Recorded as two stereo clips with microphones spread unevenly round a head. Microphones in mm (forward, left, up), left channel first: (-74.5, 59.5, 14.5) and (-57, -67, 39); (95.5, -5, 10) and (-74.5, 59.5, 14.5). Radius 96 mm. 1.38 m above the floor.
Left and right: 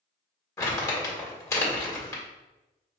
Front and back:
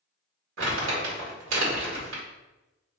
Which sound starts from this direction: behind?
Crumpling, at 0.6 s.